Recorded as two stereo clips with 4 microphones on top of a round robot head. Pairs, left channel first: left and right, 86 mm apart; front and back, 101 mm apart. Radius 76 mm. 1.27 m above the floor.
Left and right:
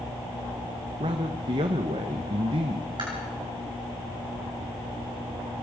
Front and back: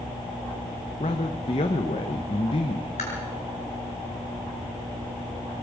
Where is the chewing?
35° right, 6.5 m.